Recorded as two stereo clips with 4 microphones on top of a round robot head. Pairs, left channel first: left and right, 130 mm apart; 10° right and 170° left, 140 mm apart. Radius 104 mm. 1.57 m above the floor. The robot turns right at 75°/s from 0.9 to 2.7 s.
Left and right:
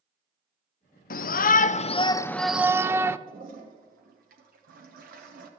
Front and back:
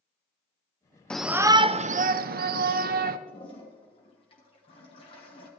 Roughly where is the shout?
Left.